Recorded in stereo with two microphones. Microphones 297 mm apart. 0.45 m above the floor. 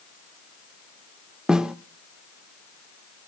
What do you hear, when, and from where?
1.5 s a snare drum: centre (ahead or behind), 0.6 m